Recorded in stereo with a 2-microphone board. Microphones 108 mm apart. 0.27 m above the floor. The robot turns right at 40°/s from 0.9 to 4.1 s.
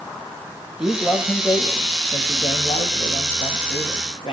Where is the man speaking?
10° right, 6 m; by 4.3 s 120° left, 6 m.